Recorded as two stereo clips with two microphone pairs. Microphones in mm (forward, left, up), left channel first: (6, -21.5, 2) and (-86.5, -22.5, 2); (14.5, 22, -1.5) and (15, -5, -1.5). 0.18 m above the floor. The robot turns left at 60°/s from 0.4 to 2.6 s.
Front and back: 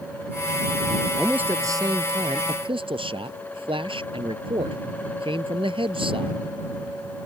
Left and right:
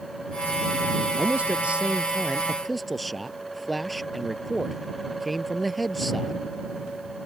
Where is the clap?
No clap in this recording.